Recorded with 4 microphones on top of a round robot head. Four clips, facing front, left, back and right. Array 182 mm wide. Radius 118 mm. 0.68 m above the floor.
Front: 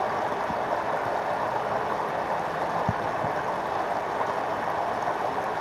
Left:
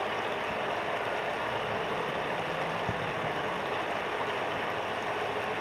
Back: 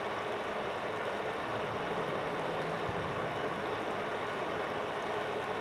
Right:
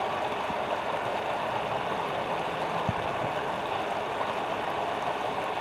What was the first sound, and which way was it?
Running water, 25° right.